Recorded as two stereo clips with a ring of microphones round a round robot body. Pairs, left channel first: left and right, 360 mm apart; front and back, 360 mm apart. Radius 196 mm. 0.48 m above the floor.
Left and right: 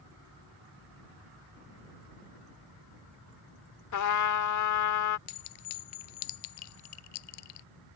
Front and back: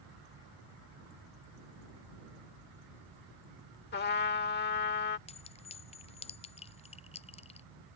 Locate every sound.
3.9 s a trumpet: 60° left
5.3 s a clink: 75° left